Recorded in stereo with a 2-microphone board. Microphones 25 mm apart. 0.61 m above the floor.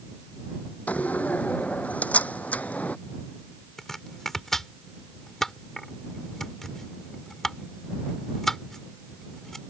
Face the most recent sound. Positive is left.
turn(degrees=10)  # may be behind; listen again after turning